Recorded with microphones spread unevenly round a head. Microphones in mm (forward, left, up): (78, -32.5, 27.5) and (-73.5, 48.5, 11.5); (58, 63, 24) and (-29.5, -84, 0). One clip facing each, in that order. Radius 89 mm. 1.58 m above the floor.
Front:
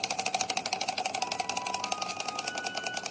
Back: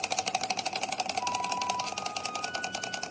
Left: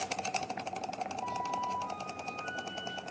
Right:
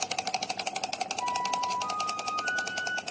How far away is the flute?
About 2.5 m.